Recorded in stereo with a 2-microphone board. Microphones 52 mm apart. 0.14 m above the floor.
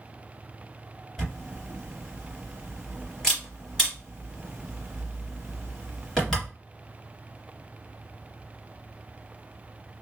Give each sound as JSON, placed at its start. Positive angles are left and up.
{"t": 1.2, "sound": "a camera shutter", "side_deg": 10, "distance_m": 2.5}